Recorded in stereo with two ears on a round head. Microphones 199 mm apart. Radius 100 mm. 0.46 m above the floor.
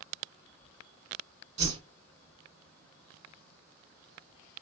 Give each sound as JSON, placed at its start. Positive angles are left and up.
{"t": 1.6, "sound": "a whoosh", "side_deg": -30, "distance_m": 1.2}